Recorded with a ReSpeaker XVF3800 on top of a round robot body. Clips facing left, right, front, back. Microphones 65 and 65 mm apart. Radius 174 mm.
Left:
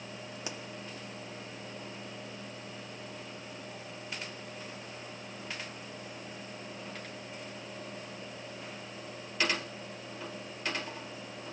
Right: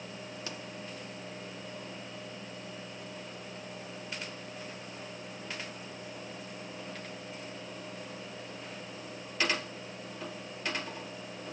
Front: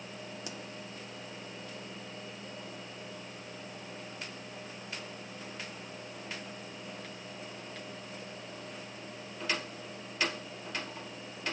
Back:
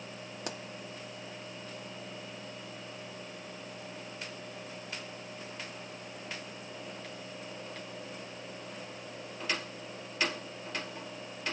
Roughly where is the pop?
Behind.